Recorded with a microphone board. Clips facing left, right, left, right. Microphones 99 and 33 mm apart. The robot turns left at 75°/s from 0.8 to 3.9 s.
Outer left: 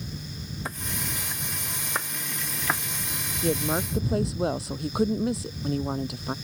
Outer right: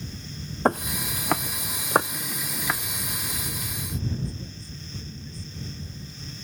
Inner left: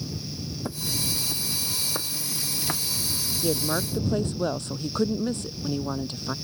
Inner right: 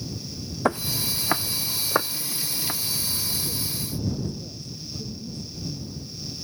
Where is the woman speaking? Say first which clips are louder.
Outer left 11 dB, inner left 6 dB; 115° left; by 6.3 s 80° left.